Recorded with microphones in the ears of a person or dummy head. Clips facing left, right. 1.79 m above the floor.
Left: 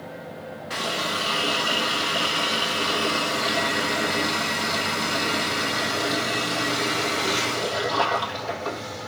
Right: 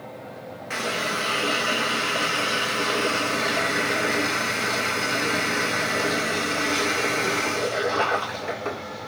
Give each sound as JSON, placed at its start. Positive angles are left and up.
{"t": 0.7, "sound": "a running tap", "side_deg": -30, "distance_m": 1.7}